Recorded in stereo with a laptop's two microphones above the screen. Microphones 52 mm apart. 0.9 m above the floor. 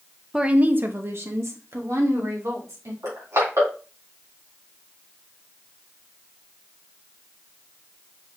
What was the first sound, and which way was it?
A woman speaking, 10° right (ahead or behind).